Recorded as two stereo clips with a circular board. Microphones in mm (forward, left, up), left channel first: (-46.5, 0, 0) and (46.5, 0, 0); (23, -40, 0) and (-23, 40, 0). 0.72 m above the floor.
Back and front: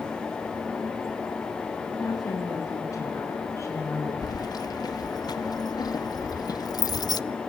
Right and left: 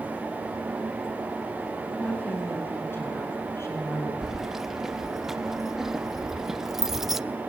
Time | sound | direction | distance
2.0 | a woman speaking | 135° right | 7 m
4.2 | keys jangling | 155° right | 0.5 m